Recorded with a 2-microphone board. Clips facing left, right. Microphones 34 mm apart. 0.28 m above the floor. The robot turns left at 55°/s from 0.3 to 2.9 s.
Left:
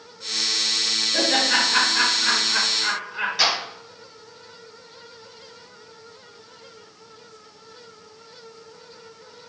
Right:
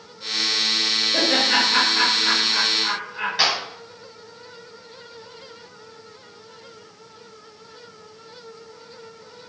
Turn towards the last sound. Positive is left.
turn(degrees=-20)  # may be behind; listen again after turning